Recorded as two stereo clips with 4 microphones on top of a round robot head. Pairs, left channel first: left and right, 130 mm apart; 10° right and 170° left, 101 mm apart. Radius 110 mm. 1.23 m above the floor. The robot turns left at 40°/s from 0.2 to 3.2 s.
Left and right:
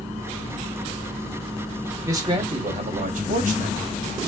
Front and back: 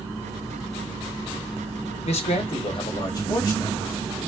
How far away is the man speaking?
About 0.8 m.